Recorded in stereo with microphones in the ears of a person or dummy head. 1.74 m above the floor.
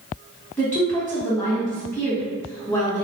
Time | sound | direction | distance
0.6 | a woman speaking | 15° left (ahead or behind) | 1.4 m